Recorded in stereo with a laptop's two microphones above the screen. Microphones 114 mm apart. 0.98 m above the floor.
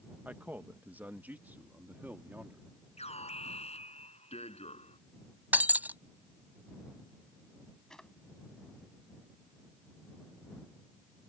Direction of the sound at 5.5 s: 15° right (ahead or behind).